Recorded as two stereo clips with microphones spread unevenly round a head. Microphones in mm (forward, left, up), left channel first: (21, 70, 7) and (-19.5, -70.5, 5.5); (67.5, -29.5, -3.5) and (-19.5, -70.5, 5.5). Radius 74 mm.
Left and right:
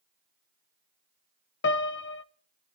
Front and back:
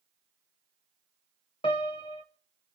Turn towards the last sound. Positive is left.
turn(degrees=85)